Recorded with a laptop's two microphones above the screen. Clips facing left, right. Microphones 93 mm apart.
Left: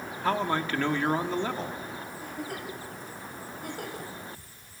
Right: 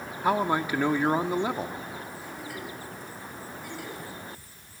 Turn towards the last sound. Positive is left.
turn(degrees=50)  # may be behind; listen again after turning